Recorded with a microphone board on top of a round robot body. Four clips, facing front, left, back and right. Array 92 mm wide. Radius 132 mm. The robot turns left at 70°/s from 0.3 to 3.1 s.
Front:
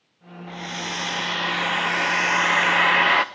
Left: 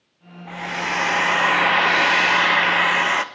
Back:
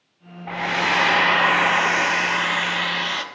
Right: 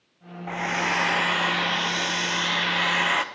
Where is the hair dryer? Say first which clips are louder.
Even, back 10 dB; 150° right, 0.5 m; by 3.2 s 25° left, 0.5 m.